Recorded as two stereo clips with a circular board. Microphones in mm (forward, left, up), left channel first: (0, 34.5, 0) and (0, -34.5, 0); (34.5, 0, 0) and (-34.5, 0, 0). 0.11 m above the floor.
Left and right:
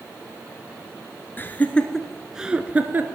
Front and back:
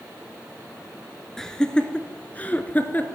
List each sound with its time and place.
1.4 s laughter: 75° left, 1.4 m; by 3.0 s 50° right, 1.6 m